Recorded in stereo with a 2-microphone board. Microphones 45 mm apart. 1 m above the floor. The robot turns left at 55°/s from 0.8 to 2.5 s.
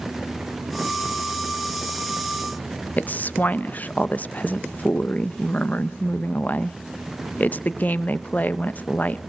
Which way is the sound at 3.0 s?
40° left (ahead or behind).